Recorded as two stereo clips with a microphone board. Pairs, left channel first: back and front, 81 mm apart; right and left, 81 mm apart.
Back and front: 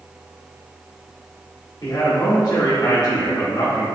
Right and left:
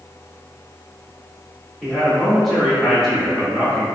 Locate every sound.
1.8 s a man speaking: 175° left, 1.2 m